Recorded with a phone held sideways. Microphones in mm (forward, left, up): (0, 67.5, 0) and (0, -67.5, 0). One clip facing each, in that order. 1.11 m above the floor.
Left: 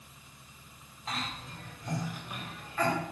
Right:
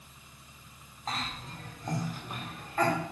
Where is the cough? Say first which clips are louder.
Right 1 dB; 40° right (ahead or behind), 3 m.